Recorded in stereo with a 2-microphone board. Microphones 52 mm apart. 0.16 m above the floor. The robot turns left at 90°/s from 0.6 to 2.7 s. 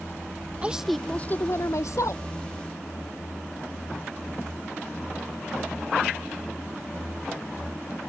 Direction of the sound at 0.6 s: 155° right.